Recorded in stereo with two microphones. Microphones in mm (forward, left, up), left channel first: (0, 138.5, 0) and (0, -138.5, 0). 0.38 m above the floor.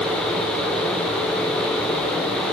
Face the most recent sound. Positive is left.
No sound to turn to.